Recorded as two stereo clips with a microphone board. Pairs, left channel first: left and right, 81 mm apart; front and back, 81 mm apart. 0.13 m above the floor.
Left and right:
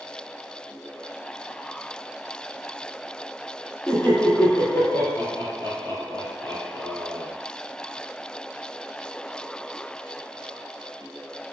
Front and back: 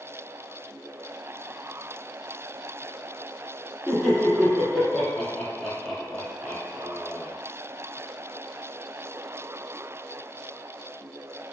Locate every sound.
3.9 s laughter: 75° left, 1.5 m